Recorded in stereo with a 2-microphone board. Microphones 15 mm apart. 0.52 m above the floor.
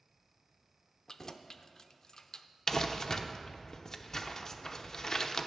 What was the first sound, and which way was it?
Keys jangling, 30° left (ahead or behind).